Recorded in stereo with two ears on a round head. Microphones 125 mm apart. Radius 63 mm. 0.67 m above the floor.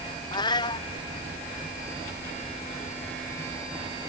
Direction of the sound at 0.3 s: 35° left (ahead or behind).